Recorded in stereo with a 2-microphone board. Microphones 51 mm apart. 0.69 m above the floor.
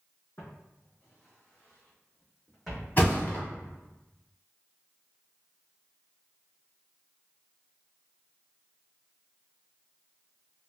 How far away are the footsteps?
About 1.7 m.